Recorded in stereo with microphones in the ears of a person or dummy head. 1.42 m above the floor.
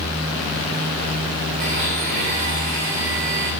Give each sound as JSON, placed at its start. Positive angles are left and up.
{"t": 1.6, "sound": "a blender", "side_deg": -50, "distance_m": 1.9}